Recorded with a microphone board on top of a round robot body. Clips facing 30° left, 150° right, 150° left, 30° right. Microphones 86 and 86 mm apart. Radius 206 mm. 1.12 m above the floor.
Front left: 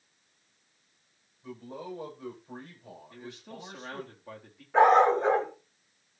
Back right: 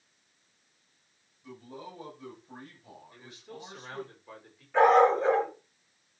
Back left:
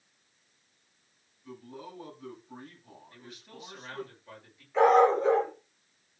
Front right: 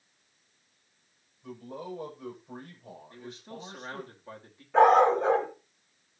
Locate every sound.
1.4 s a man speaking: 15° right, 7.5 m
3.1 s a man speaking: 25° left, 3 m
4.7 s a dog barking: 25° right, 4.5 m